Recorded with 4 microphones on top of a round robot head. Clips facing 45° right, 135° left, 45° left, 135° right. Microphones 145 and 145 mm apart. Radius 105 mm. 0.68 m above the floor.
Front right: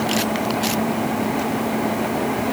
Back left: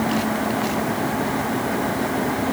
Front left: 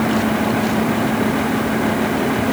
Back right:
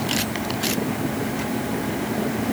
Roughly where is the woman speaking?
No woman speaking in this recording.